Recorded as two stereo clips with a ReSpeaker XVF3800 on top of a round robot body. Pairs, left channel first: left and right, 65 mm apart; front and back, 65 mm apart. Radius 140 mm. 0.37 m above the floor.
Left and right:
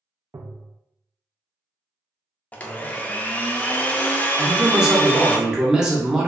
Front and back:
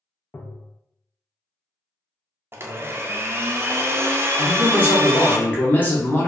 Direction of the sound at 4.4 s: 20° right.